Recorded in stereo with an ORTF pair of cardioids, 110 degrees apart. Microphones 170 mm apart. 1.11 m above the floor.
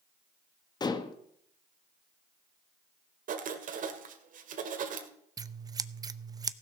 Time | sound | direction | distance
0.8 | dishes clattering | 25° left | 1.1 m
3.3 | writing | 55° right | 1.9 m
5.4 | scissors | 20° right | 0.6 m